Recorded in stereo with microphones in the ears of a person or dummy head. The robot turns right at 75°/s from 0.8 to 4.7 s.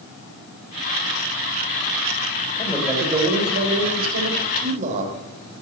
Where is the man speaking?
160° left, 4 m; by 5.2 s 45° right, 4 m.